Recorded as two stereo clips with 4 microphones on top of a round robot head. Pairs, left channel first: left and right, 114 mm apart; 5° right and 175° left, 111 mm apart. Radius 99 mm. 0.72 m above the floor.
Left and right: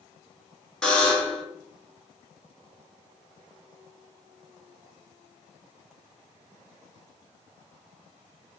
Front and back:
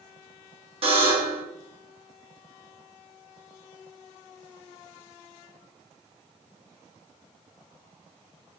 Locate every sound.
0.8 s a buzzer: 170° left, 1.5 m